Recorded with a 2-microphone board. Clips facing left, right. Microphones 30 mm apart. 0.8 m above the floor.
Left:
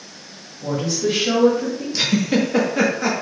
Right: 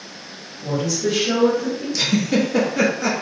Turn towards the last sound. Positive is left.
turn(degrees=20)  # may be behind; listen again after turning